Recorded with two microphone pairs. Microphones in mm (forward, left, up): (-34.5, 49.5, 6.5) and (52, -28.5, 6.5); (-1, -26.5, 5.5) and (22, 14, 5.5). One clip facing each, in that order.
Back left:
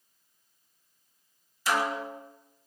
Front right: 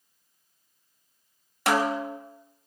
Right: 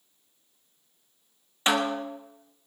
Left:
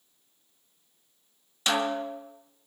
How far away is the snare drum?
About 1.7 m.